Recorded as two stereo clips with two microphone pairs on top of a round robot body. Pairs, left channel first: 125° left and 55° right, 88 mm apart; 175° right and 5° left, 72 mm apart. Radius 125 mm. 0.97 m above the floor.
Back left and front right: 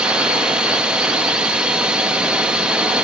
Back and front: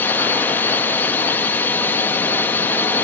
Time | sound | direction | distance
0.0 | a drone | 120° right | ?